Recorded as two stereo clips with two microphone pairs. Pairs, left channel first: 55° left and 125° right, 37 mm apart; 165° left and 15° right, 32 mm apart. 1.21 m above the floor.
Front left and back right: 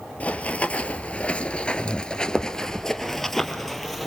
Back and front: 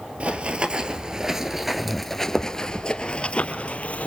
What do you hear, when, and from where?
0.2 s running footsteps: 10° left, 1.6 m; by 4.1 s 140° left, 1.9 m